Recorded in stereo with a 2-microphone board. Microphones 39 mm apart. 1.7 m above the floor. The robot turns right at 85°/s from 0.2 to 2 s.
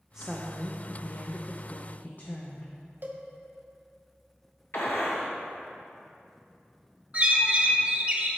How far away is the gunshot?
About 1.1 m.